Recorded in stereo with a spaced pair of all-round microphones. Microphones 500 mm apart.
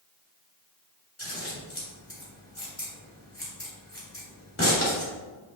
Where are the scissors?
25° left (ahead or behind), 3 m.